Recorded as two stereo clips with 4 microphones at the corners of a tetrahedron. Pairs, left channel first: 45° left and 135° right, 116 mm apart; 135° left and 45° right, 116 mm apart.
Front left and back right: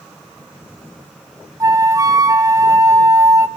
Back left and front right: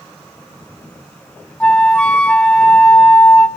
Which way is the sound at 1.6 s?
150° right.